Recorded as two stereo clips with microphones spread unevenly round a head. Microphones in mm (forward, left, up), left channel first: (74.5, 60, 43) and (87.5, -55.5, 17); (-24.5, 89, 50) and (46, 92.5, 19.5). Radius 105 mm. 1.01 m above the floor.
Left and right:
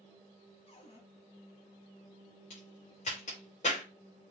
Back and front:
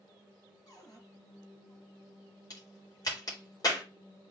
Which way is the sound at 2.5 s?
150° left.